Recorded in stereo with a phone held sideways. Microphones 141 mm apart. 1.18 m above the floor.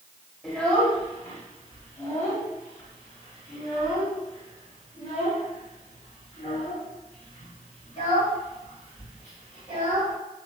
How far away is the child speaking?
About 2.5 m.